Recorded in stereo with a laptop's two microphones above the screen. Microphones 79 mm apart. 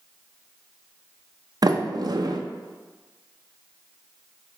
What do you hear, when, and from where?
1.6 s a sliding door: 55° right (ahead or behind), 0.6 m